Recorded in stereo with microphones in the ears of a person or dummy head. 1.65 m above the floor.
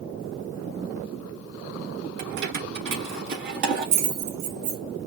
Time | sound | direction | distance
2.2 | keys jangling | 60° right (ahead or behind) | 1.6 m